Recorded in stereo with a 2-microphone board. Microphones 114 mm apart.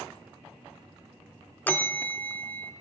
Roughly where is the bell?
Centre.